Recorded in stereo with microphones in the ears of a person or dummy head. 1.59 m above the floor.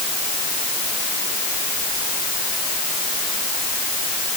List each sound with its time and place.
Only background noise.